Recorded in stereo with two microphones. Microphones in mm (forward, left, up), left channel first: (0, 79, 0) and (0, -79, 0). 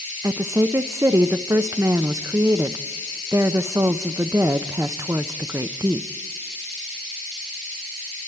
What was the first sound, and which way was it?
A woman speaking, 20° right (ahead or behind).